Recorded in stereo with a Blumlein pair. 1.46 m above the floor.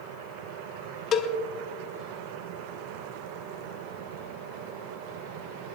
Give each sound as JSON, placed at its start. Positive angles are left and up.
{"t": 1.1, "sound": "a cowbell", "azimuth_deg": 30, "distance_m": 0.8}